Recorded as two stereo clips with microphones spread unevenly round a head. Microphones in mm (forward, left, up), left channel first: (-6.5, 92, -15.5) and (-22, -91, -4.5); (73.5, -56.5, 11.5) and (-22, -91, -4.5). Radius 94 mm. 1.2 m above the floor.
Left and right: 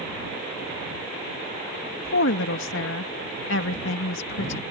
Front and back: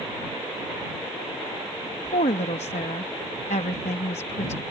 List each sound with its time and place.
2.0 s a woman speaking: 60° left